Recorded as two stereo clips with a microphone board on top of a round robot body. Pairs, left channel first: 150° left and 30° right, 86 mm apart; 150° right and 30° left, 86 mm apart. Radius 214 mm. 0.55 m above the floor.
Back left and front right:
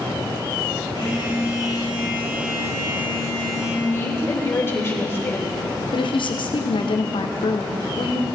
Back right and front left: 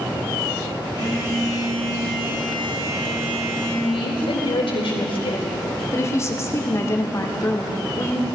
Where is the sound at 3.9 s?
150° right, 4 m.